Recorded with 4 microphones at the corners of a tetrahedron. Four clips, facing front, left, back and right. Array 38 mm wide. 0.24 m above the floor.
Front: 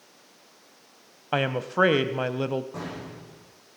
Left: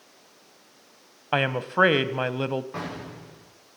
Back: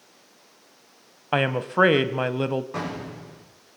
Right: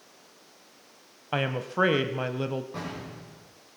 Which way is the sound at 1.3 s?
120° left.